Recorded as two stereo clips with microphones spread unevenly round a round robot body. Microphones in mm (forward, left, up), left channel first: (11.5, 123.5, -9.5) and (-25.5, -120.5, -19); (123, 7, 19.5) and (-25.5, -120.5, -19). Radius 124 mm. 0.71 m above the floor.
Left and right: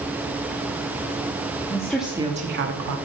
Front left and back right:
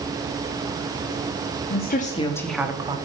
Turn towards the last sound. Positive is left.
turn(degrees=-85)